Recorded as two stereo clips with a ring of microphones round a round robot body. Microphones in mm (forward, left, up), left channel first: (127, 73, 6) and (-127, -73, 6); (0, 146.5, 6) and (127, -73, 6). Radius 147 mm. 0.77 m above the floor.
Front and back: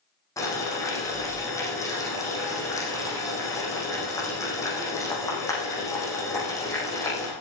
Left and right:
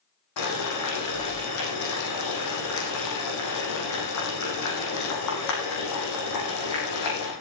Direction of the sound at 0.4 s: 110° left.